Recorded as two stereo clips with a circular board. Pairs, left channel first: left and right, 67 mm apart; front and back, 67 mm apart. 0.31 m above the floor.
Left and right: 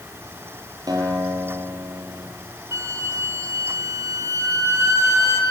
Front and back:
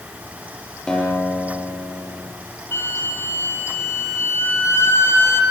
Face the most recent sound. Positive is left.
turn(degrees=-50)